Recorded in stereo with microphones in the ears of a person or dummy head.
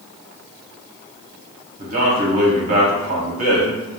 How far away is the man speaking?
About 0.8 m.